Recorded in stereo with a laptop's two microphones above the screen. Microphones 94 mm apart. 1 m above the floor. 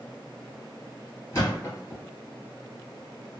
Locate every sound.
1.3 s a thud: 35° left (ahead or behind), 1.7 m